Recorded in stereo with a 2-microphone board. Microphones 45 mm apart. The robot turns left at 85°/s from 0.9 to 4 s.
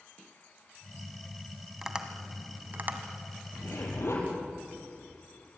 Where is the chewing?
I don't hear chewing.